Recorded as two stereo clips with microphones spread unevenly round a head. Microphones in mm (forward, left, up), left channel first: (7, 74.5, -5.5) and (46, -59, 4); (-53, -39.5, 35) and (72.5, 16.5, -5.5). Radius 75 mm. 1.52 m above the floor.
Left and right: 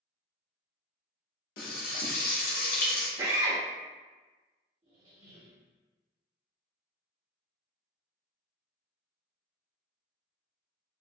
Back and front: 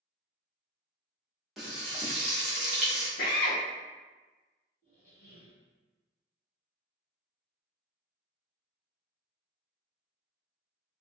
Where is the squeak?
150° right, 1.4 m.